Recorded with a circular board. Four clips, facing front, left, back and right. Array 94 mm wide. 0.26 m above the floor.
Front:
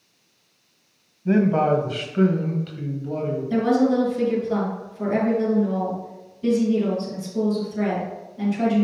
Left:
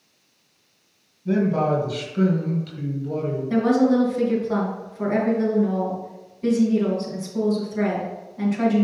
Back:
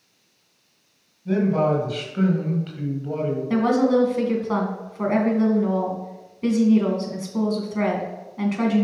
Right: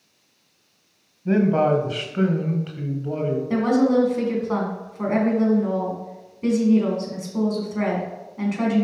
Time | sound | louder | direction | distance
1.2 | a man speaking | right 2 dB, front 2 dB | 40° right | 1.4 m
3.5 | a woman speaking | left 1 dB, even | 160° right | 3 m